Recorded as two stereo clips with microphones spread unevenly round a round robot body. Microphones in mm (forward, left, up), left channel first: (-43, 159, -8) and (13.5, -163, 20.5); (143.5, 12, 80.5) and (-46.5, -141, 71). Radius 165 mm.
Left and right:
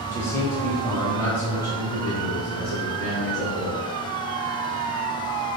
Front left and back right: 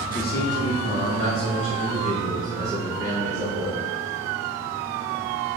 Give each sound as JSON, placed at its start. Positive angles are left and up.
{"t": 0.1, "sound": "a man speaking", "azimuth_deg": 35, "distance_m": 1.1}